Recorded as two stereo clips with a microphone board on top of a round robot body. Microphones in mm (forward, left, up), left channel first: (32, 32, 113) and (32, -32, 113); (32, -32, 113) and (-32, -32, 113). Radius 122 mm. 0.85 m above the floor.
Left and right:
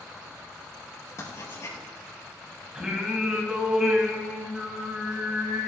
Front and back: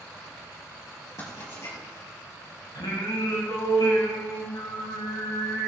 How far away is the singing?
About 3.5 m.